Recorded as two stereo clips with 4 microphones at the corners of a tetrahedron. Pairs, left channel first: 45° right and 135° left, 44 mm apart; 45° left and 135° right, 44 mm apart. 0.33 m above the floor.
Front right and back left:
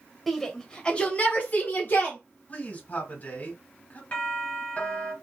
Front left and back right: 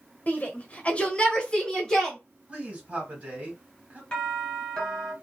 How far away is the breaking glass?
No breaking glass in this recording.